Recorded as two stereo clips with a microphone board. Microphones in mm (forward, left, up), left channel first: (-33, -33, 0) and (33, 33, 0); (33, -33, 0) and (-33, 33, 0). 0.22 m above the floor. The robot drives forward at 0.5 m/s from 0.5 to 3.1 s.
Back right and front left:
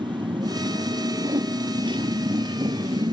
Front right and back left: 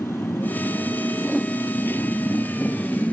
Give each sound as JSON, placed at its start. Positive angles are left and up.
{"t": 0.0, "sound": "a motorcycle", "azimuth_deg": 20}
{"t": 1.2, "sound": "a whoosh", "azimuth_deg": 40}